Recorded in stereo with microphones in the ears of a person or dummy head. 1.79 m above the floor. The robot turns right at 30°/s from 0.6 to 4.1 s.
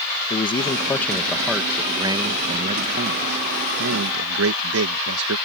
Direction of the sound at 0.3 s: 155° left.